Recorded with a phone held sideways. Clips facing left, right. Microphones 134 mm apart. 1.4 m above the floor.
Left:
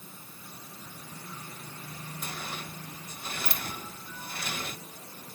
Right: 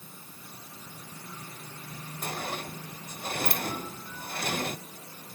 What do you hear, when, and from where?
2.2 s a sliding door: 50° right (ahead or behind)